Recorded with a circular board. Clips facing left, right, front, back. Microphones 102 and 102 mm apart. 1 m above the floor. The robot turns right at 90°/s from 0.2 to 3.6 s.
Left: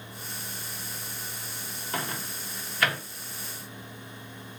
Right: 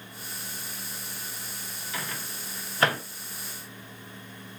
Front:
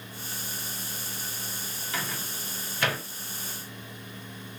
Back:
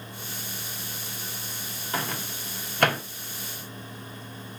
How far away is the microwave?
About 0.8 m.